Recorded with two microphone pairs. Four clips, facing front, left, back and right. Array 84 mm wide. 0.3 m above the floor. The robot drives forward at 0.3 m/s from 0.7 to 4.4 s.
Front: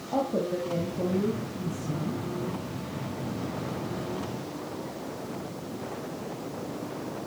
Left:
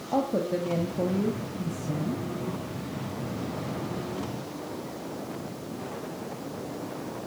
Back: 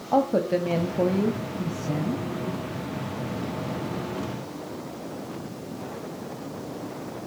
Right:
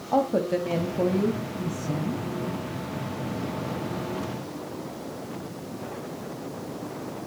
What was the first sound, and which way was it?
A woman speaking, 150° right.